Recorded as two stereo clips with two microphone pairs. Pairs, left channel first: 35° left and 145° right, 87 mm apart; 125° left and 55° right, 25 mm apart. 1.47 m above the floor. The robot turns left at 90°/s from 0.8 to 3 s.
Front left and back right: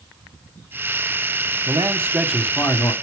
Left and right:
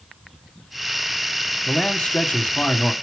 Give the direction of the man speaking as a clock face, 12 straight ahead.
6 o'clock.